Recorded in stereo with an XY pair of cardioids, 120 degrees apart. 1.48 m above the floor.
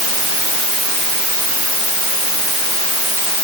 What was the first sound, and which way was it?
Only background noise.